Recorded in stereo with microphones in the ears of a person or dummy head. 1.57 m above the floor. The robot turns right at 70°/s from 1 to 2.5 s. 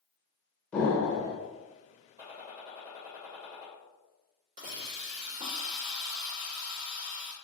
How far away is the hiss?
About 1.4 m.